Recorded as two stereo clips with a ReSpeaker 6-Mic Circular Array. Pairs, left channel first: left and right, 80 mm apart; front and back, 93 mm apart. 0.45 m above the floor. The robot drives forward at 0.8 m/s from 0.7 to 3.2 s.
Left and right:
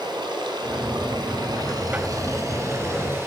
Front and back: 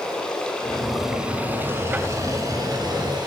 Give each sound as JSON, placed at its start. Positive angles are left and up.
{"t": 0.0, "sound": "running water", "azimuth_deg": -80, "distance_m": 1.3}